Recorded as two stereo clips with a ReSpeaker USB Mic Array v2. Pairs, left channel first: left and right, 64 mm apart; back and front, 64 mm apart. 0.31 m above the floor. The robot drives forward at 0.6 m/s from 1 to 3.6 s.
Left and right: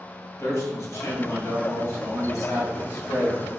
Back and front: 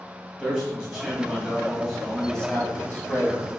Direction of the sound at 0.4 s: 75° left.